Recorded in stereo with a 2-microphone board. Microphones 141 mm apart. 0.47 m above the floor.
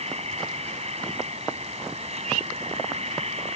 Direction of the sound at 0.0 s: 50° right (ahead or behind).